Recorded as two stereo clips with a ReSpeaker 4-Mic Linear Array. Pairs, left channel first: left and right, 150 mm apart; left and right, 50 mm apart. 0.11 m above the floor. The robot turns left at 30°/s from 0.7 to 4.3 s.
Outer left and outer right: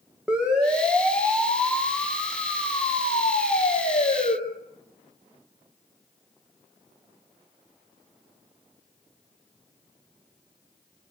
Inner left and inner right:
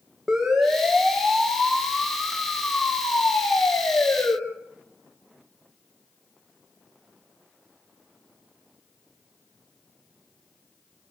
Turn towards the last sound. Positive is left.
turn(degrees=60)  # may be behind; listen again after turning